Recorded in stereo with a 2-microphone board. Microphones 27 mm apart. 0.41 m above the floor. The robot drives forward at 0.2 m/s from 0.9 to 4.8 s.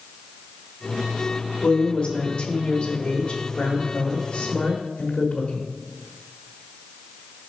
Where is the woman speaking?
35° left (ahead or behind), 1.1 m; by 5.7 s 40° left (ahead or behind), 1.0 m.